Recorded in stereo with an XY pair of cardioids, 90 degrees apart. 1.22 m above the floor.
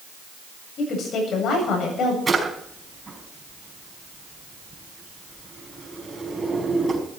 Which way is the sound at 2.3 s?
25° right.